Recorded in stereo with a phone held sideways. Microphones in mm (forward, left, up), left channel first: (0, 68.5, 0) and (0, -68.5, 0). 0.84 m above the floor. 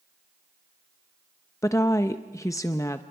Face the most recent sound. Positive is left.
turn(degrees=20)  # may be behind; listen again after turning